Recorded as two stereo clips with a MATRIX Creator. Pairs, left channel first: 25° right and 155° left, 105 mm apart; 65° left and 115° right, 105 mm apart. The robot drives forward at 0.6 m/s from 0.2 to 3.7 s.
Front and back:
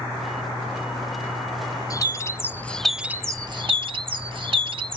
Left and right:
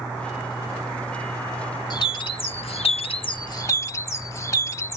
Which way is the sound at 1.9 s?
30° left.